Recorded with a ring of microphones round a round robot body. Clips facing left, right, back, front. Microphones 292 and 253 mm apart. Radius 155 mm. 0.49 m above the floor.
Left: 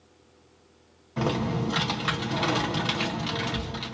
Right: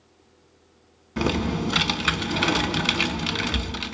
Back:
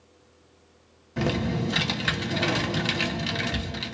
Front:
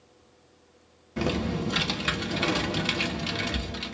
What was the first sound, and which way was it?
Typing on a keyboard, 100° right.